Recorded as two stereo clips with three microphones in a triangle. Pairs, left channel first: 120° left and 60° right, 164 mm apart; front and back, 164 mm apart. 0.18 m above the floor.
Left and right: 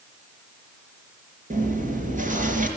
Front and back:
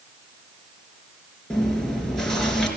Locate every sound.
1.5 s chewing: 85° right, 3.5 m